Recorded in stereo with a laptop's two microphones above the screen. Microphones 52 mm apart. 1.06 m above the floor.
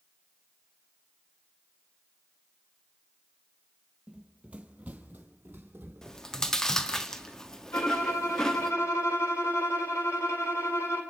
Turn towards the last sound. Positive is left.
turn(degrees=65)  # may be behind; listen again after turning